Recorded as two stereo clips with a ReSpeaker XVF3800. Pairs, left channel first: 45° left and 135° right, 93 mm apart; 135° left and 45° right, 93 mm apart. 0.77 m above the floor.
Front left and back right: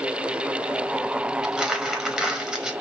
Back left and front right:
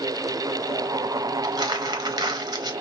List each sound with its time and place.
1.4 s crumpling: 55° right, 0.7 m